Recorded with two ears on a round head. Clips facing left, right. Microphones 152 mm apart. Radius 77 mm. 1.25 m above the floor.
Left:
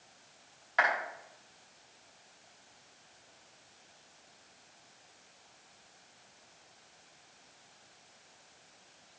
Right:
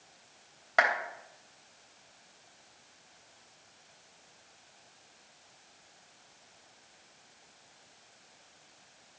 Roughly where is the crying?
I don't hear crying.